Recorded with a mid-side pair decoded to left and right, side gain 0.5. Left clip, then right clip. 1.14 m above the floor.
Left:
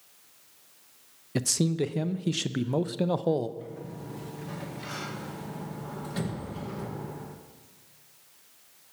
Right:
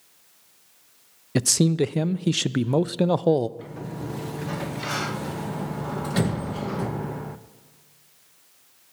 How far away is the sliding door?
About 0.8 m.